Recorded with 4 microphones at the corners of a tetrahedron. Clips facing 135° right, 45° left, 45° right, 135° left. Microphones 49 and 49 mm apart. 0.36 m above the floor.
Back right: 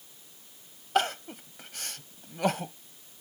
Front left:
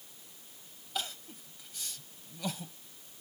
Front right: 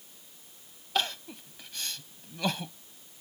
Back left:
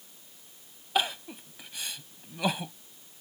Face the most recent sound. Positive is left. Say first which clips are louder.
# back right 12 dB, back left 2 dB
turn(degrees=-150)